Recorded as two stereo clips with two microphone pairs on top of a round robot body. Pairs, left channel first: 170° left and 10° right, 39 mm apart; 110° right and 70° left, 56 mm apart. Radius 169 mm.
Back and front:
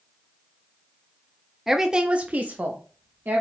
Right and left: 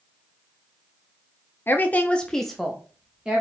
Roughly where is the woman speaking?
Right.